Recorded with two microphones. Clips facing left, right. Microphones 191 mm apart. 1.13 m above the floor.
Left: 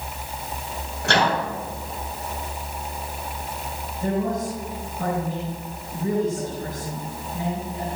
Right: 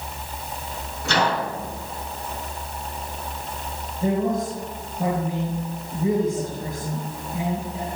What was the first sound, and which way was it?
A microwave, 85° left.